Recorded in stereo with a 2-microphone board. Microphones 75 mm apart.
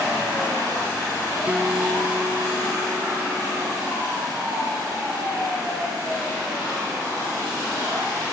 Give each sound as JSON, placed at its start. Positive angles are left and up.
{"t": 1.5, "sound": "a guitar", "side_deg": -15}